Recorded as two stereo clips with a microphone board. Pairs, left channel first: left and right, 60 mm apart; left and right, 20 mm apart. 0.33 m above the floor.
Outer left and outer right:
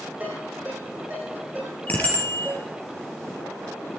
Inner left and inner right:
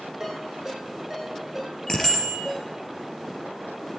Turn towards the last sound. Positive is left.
turn(degrees=20)  # may be behind; listen again after turning